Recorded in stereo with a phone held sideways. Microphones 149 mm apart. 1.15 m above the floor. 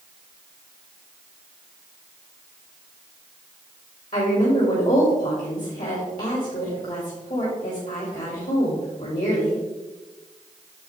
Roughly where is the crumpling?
I don't hear crumpling.